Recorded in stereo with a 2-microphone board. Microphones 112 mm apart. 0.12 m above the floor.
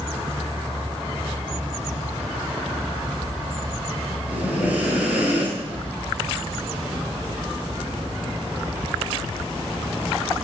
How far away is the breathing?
About 0.9 m.